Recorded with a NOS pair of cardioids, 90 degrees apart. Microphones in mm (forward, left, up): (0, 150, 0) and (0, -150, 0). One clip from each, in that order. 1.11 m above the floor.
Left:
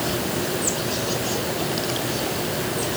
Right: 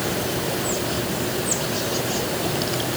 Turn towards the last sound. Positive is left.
No sound to turn to.